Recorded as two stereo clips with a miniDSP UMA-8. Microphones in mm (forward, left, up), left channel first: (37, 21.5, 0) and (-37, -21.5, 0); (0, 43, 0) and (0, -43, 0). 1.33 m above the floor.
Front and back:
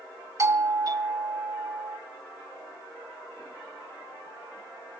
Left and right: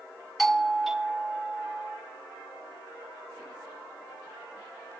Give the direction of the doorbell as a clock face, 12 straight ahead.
6 o'clock.